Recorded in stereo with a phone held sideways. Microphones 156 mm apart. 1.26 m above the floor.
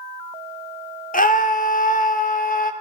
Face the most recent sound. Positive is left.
turn(degrees=60)  # may be behind; listen again after turning